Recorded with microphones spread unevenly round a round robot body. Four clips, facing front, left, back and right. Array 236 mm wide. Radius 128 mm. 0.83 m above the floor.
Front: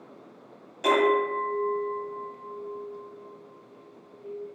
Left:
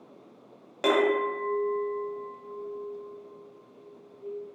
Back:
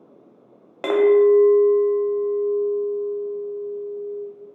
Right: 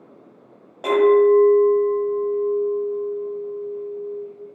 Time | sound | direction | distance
0.8 | a clink | 135° left | 0.5 m